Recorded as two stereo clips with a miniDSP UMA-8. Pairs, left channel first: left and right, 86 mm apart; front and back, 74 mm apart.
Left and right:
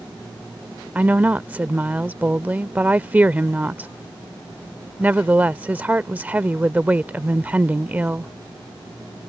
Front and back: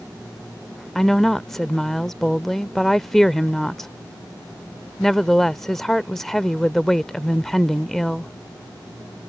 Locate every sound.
0.9 s a woman speaking: 80° right